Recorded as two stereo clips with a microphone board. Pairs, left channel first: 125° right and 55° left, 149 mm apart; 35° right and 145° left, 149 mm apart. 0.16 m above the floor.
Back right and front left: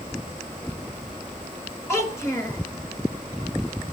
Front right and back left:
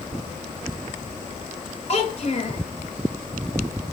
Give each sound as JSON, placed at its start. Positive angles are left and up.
{"t": 1.9, "sound": "a child speaking", "azimuth_deg": -60, "distance_m": 1.1}